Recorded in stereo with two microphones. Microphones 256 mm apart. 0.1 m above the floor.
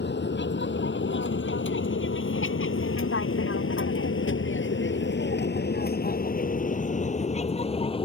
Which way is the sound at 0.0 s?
45° left (ahead or behind).